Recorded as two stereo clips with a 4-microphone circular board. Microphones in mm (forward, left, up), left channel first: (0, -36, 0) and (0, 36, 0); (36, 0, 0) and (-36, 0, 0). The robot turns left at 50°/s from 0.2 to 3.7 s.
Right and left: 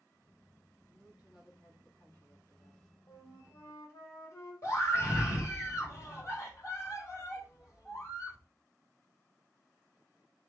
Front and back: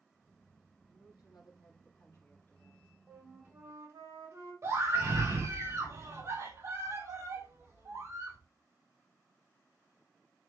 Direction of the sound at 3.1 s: 100° right.